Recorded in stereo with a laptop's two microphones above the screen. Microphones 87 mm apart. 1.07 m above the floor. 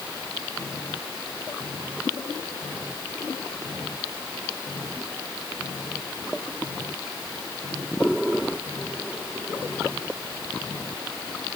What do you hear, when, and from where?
Only background noise.